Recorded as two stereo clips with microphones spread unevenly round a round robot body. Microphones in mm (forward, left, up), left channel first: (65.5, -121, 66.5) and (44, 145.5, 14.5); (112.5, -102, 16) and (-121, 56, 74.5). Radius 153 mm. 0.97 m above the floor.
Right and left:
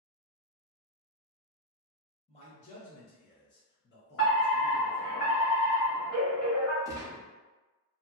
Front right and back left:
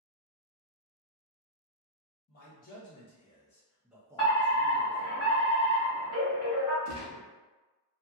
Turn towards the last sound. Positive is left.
turn(degrees=10)